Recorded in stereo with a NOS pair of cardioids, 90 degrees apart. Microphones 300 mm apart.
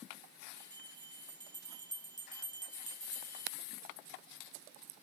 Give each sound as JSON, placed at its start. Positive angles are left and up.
{"t": 0.6, "sound": "a bell", "azimuth_deg": -15, "distance_m": 5.0}